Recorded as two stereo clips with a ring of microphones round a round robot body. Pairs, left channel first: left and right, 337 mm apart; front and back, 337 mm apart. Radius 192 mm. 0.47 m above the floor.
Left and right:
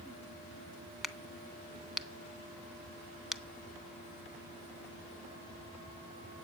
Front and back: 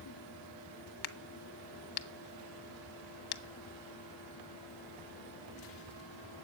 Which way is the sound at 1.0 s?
Straight ahead.